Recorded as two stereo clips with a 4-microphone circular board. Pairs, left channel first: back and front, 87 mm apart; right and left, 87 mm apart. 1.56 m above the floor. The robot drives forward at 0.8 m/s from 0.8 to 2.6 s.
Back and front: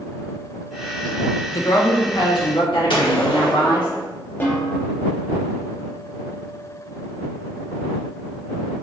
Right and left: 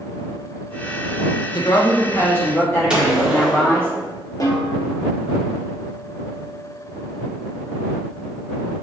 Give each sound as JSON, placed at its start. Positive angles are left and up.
{"t": 1.5, "sound": "a woman speaking", "azimuth_deg": -125, "distance_m": 0.6}
{"t": 2.9, "sound": "a gunshot", "azimuth_deg": 170, "distance_m": 1.2}
{"t": 4.4, "sound": "a snare drum", "azimuth_deg": -120, "distance_m": 0.9}